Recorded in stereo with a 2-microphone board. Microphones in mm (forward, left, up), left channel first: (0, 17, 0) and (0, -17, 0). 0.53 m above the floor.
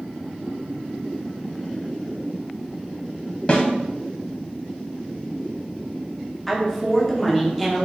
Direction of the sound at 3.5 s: 30° left (ahead or behind).